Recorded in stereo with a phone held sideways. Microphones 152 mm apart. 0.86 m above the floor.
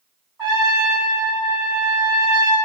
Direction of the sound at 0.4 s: 15° right (ahead or behind).